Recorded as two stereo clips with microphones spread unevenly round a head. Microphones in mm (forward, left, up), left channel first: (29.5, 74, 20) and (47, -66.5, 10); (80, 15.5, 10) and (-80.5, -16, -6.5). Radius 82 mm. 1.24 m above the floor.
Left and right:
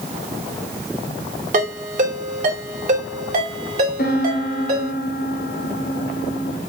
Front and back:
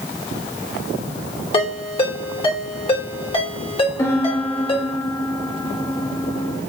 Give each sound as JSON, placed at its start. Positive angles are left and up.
{"t": 1.5, "sound": "a ringtone", "azimuth_deg": -50, "distance_m": 2.5}
{"t": 4.0, "sound": "a piano", "azimuth_deg": 85, "distance_m": 2.5}